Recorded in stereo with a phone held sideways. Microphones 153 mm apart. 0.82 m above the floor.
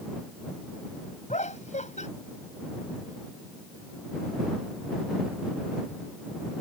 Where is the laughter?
50° left (ahead or behind).